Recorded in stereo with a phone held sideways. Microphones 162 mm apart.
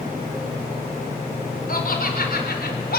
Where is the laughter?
65° left (ahead or behind), 4 m; by 3.0 s 70° left (ahead or behind), 3.5 m.